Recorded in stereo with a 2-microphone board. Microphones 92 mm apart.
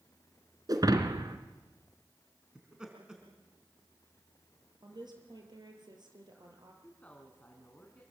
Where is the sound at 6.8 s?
15° left (ahead or behind), 3.5 m.